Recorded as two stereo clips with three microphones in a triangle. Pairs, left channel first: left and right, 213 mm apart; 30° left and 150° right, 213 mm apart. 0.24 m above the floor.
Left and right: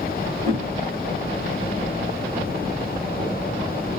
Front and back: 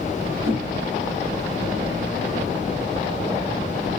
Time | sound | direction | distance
0.4 | a whoosh | 60° right | 1.8 m